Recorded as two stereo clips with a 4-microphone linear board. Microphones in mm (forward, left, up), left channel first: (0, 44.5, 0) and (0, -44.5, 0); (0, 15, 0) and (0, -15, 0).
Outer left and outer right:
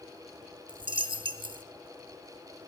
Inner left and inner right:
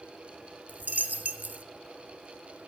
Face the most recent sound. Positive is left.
turn(degrees=-75)  # may be behind; listen again after turning